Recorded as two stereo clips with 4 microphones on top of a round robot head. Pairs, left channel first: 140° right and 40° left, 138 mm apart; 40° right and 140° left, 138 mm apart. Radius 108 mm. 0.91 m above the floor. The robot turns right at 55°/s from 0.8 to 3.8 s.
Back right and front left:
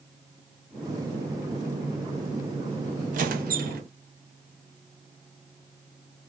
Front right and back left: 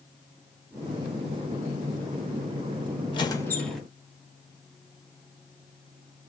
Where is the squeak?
15° left, 0.6 m; by 3.8 s 50° left, 0.6 m.